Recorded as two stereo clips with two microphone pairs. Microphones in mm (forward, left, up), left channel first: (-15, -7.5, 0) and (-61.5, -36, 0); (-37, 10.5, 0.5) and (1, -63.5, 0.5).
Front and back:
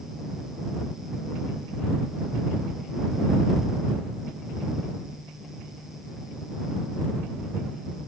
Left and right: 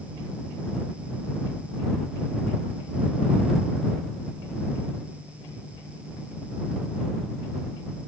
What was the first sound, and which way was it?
Only background noise.